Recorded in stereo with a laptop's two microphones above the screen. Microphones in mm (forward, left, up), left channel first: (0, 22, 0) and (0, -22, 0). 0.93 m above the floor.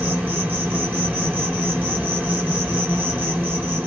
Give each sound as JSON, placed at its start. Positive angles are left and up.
{"t": 0.0, "sound": "an insect", "side_deg": -40, "distance_m": 1.5}